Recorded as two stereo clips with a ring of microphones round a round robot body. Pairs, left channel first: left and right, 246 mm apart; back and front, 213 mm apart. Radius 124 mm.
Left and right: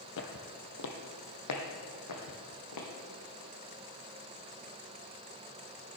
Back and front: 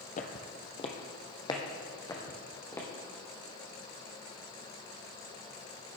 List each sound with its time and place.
0.2 s footsteps: 130° left, 1.0 m; by 2.9 s 105° left, 2.5 m